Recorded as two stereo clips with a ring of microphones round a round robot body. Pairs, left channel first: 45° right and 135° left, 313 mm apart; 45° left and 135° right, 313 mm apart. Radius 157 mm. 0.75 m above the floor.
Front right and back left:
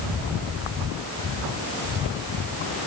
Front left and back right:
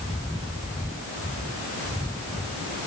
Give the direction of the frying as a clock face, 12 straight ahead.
I don't hear frying.